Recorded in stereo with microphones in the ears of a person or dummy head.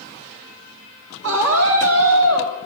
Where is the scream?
85° right, 2 m.